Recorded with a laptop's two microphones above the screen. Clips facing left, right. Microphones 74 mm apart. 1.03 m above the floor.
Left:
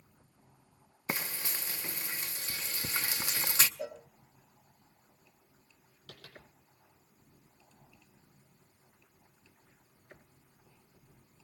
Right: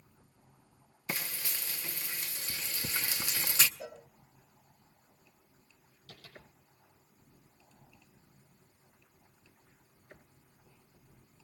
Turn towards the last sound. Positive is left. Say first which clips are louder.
# left 1 dB
turn(degrees=80)